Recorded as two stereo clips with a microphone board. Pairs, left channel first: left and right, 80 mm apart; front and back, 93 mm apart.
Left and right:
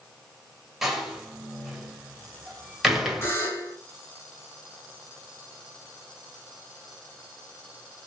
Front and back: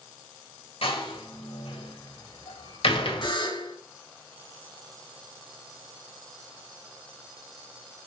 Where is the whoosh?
No whoosh in this recording.